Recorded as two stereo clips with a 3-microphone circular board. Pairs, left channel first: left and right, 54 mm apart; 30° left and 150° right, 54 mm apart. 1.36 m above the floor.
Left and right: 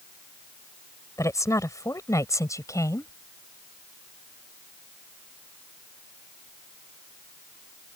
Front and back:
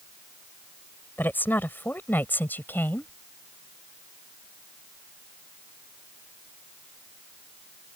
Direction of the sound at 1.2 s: 85° left.